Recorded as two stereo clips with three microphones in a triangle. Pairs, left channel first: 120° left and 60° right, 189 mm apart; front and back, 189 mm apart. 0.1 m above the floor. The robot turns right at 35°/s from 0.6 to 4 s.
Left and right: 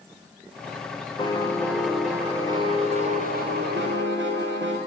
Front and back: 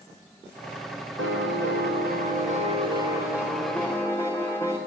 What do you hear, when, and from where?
1.2 s a piano: 175° right, 5 m; by 4.8 s 75° right, 5 m